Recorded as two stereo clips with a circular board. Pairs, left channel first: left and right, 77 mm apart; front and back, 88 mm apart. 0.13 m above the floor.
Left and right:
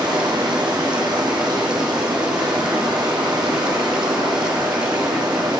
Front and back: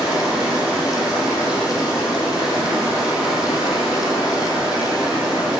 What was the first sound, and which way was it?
Running water, 100° right.